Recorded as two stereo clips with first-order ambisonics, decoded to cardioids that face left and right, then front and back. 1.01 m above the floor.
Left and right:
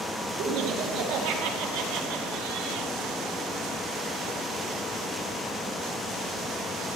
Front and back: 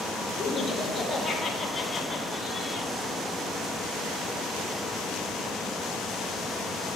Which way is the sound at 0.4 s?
80° right.